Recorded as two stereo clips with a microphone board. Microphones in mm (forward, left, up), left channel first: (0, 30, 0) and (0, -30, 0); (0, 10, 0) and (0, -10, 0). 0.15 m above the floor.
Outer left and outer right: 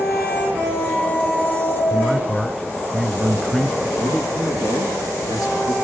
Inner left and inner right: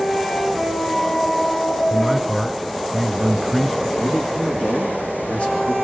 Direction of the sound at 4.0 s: 75° left (ahead or behind).